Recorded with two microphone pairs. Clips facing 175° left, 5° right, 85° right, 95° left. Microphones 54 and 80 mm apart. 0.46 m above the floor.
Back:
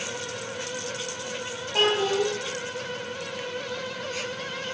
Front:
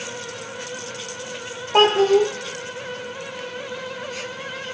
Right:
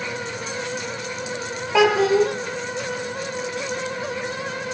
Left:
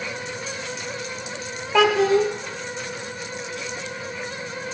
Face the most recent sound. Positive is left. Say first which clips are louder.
# front 8 dB, right 1 dB
turn(degrees=5)